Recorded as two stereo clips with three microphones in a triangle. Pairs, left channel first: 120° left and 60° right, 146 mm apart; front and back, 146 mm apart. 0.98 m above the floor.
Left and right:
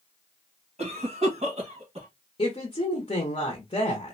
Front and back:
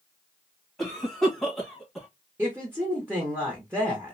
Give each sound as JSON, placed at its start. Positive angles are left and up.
{"t": 0.8, "sound": "a cough", "azimuth_deg": -90, "distance_m": 1.3}
{"t": 2.4, "sound": "a woman speaking", "azimuth_deg": 115, "distance_m": 0.8}